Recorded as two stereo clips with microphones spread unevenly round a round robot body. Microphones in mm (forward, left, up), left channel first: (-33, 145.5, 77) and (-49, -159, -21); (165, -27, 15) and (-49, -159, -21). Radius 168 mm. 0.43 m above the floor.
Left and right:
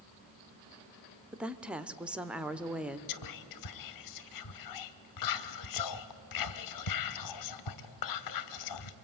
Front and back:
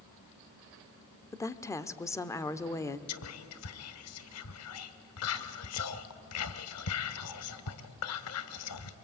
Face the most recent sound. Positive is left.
turn(degrees=55)